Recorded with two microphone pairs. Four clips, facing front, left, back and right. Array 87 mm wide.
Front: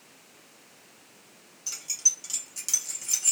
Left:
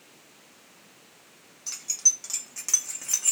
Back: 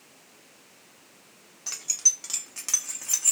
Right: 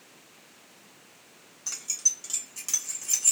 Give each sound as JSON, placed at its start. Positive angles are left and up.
{"t": 1.7, "sound": "keys jangling", "azimuth_deg": -165, "distance_m": 0.8}